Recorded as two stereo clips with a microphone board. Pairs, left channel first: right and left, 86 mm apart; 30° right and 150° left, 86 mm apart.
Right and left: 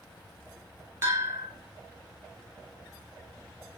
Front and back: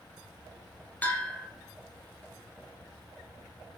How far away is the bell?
About 0.7 m.